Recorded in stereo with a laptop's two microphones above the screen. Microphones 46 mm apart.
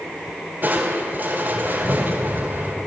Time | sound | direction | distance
0.6 | crushing | 40° right (ahead or behind) | 4 m